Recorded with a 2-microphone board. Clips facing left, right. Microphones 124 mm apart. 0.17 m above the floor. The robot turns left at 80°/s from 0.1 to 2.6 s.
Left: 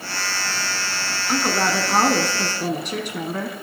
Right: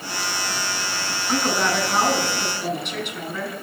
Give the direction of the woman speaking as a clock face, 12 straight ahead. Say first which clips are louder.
Even; 6 o'clock.